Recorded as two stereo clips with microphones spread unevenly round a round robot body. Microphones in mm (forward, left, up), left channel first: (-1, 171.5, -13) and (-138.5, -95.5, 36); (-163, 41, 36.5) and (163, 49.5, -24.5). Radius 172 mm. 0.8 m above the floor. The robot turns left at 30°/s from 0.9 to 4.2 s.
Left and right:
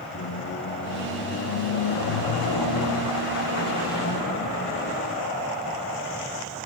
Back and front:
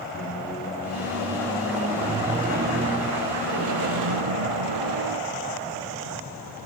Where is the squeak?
110° left, 0.8 m; by 5.2 s 10° left, 0.8 m.